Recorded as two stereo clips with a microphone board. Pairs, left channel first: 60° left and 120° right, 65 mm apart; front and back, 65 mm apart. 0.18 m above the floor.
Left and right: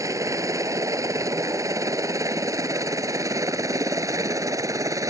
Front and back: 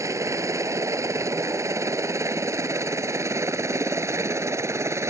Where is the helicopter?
150° right; by 5.1 s 145° right.